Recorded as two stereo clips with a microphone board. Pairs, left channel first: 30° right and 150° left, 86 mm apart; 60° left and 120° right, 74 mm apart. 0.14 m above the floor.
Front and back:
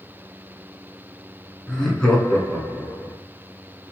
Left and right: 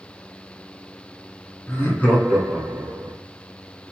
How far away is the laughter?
About 1.8 m.